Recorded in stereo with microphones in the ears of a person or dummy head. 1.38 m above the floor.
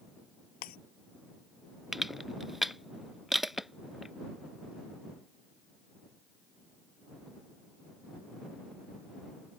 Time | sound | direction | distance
0.6 | breaking glass | 50° left (ahead or behind) | ?
1.9 | crushing | 5° right (ahead or behind) | ?